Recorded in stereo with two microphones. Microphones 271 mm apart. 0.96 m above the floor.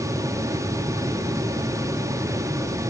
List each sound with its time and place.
Only background noise.